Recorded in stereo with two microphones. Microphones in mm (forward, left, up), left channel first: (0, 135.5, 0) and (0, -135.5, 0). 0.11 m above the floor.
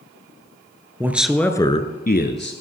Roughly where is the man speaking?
Centre.